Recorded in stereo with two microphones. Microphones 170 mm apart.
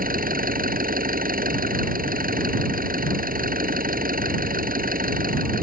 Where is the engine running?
55° right (ahead or behind).